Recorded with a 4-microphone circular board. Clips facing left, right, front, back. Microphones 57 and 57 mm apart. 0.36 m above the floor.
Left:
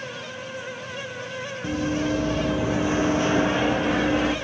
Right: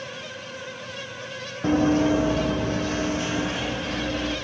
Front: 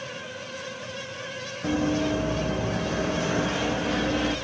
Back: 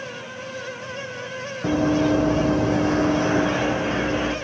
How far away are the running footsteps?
About 1.1 m.